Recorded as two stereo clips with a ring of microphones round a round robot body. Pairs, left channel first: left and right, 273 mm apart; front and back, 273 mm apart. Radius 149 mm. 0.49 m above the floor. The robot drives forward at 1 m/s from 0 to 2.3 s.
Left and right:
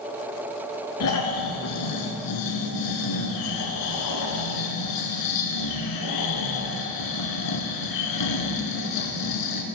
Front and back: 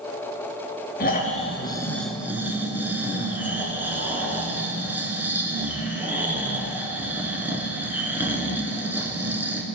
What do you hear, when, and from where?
1.0 s snoring: 55° left, 2 m; by 9.6 s 95° left, 1.7 m